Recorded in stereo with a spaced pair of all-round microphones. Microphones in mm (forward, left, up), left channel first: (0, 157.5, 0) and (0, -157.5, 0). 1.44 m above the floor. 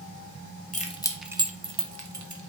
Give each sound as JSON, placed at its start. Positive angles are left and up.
{"t": 0.7, "sound": "keys jangling", "side_deg": 25, "distance_m": 0.9}